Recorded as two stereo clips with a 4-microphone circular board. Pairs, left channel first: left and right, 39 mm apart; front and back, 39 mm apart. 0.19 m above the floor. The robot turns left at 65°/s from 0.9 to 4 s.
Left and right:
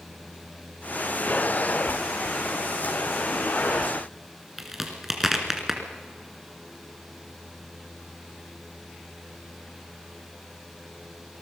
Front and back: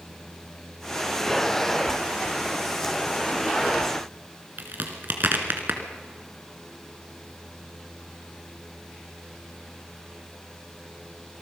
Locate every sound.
4.6 s a crack: 170° right, 2.5 m